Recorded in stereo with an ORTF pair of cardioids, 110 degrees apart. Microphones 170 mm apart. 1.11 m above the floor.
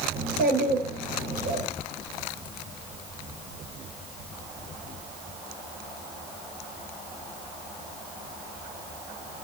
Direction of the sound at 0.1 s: 60° right.